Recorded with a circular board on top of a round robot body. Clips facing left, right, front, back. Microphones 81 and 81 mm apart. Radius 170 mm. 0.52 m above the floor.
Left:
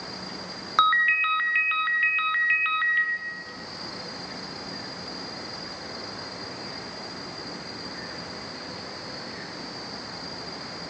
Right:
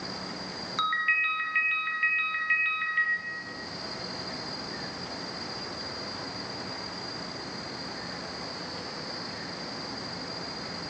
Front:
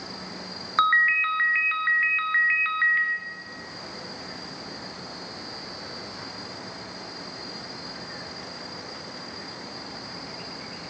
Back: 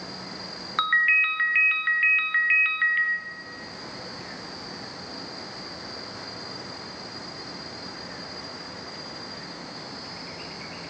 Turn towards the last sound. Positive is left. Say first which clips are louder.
# left 7 dB, front 3 dB
turn(degrees=70)